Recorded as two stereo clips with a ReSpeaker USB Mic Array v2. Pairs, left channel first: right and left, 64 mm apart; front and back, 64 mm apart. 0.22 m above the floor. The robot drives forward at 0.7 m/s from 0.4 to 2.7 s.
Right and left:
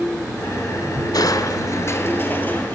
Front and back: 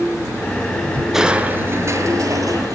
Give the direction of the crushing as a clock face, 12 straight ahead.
3 o'clock.